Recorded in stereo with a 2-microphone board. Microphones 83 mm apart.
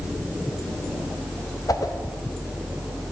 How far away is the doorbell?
I don't hear a doorbell.